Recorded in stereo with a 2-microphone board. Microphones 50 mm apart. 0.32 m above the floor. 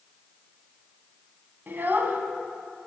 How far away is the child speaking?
About 1.7 m.